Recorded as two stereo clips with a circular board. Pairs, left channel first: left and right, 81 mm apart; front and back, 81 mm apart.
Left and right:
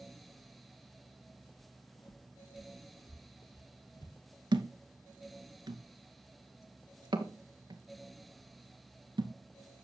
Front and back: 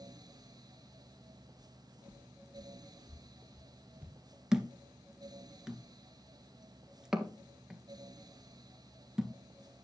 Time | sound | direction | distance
1.6 | footsteps | 105° left | 1.7 m
4.5 | a thud | 95° right | 1.5 m